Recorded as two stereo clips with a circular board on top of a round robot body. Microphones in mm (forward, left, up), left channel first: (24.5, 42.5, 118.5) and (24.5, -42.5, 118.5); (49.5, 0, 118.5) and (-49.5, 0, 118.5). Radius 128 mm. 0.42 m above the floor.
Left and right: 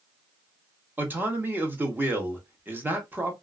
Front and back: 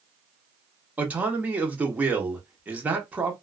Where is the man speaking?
125° right, 1.0 m.